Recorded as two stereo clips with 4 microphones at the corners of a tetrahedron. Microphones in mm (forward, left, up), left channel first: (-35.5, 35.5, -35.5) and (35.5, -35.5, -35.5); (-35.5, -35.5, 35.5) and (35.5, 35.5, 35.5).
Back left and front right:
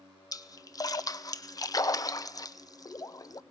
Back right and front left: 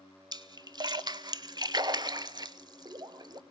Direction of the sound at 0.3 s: 90° left.